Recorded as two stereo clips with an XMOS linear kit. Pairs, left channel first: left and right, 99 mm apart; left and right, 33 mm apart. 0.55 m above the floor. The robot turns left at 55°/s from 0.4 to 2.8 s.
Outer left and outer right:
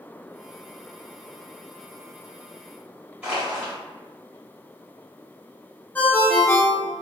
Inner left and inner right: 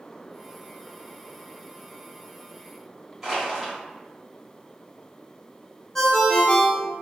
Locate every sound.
3.2 s crushing: 15° right (ahead or behind), 1.2 m
6.0 s a ringtone: 15° left (ahead or behind), 0.6 m